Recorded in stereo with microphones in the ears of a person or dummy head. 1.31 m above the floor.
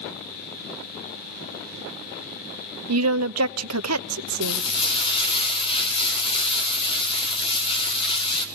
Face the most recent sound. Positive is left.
turn(degrees=30)  # may be behind; listen again after turning